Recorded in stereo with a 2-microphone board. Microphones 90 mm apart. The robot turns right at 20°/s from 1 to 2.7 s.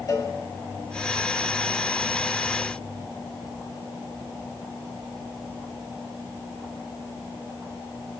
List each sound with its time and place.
0.1 s a cowbell: 40° left (ahead or behind), 1.2 m